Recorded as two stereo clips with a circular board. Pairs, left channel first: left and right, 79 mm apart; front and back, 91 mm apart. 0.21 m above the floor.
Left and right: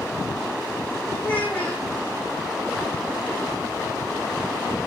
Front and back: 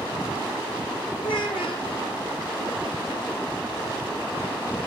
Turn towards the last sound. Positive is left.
turn(degrees=15)